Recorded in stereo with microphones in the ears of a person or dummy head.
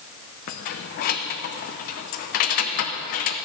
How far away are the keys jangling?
About 0.7 m.